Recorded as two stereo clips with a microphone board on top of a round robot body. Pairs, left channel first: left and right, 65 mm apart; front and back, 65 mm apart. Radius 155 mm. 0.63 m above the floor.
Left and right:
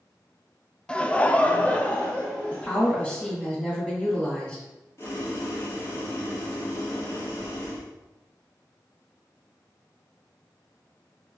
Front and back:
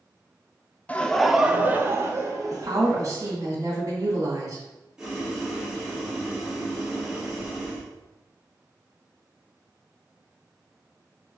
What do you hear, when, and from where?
0.9 s laughter: 35° left, 0.6 m; by 3.3 s 165° left, 1.2 m
2.5 s a woman speaking: 160° left, 2 m
5.0 s boiling: 105° left, 1.5 m